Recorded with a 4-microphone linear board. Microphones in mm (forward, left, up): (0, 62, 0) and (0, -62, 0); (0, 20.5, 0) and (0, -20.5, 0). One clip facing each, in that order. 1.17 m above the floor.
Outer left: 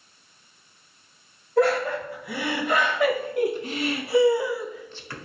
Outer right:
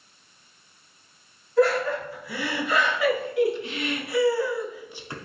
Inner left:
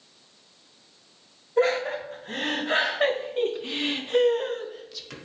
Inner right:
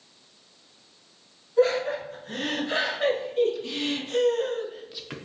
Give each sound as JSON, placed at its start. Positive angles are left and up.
{"t": 1.6, "sound": "laughter", "side_deg": 60, "distance_m": 1.8}